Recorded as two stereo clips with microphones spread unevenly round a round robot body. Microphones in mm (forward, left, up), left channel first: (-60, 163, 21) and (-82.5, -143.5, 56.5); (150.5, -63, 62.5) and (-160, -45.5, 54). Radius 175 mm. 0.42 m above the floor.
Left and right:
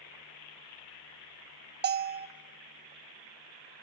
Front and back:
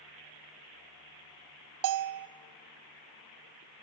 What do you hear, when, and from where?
1.8 s a bell: 150° right, 0.6 m